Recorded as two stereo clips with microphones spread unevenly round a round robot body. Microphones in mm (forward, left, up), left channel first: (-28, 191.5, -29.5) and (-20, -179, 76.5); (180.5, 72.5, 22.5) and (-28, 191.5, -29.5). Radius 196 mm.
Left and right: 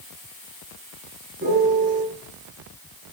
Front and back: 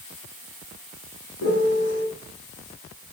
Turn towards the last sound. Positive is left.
turn(degrees=-20)